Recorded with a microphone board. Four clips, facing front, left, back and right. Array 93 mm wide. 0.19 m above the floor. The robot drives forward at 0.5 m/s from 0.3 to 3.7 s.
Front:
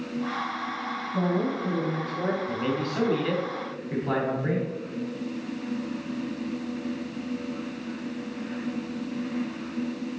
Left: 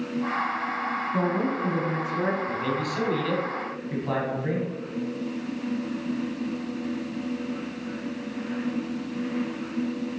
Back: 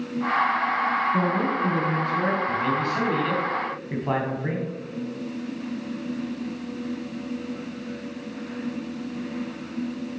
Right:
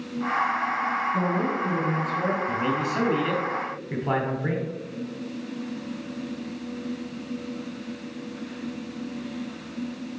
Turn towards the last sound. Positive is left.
turn(degrees=-135)